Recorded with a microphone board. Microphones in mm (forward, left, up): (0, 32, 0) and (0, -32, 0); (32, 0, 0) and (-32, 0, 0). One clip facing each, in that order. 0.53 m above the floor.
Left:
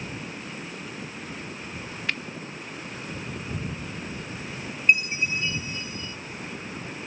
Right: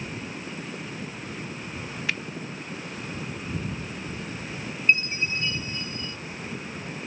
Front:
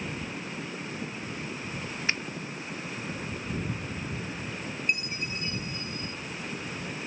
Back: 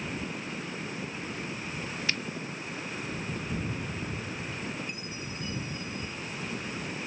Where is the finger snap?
5° right.